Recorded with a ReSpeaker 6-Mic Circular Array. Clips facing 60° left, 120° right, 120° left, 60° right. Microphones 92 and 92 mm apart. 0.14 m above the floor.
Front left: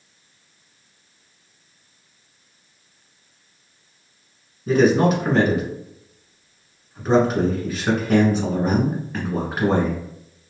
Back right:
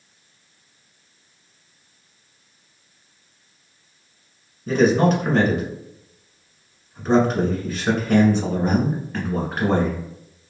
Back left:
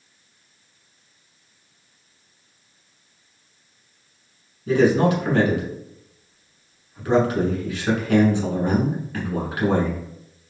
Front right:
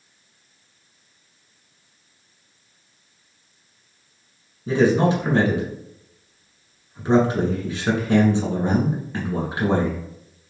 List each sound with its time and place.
4.7 s a man speaking: 25° right, 1.3 m